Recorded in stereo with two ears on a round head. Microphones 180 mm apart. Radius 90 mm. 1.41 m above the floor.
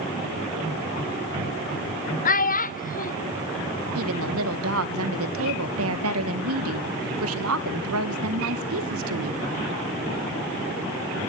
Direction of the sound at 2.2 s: 45° left (ahead or behind).